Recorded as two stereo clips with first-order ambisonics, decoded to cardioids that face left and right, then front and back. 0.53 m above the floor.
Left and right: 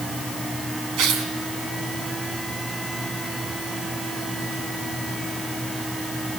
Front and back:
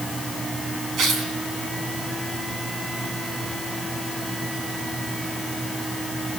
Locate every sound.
1.0 s tearing paper: 125° right, 4 m